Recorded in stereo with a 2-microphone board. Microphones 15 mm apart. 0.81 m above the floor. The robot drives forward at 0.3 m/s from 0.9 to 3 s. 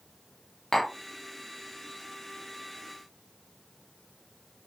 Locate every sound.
0.7 s tapping: 35° left (ahead or behind), 0.7 m